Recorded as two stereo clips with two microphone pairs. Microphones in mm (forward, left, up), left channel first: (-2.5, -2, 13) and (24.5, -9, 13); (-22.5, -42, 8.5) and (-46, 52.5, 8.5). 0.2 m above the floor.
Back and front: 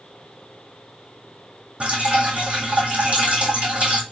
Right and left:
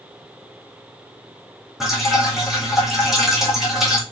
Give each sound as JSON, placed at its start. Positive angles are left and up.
{"t": 1.8, "sound": "dripping", "azimuth_deg": 15, "distance_m": 1.7}